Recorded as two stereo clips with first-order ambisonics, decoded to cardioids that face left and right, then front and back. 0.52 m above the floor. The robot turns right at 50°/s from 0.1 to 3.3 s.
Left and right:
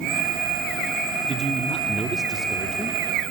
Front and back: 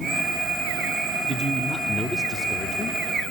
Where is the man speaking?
120° right, 1.0 m; by 3.0 s 35° right, 1.0 m.